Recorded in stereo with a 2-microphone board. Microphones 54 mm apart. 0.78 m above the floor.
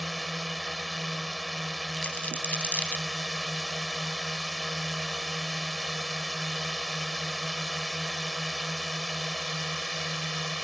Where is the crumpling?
30° left (ahead or behind).